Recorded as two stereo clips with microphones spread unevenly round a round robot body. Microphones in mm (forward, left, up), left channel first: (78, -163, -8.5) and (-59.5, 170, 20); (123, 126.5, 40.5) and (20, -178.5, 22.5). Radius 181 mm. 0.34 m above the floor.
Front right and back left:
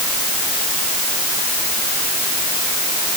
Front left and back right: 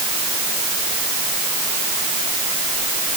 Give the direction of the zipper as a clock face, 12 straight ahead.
No zipper in this recording.